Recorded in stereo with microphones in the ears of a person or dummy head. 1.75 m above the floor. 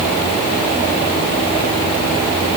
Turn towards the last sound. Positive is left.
No sound to turn to.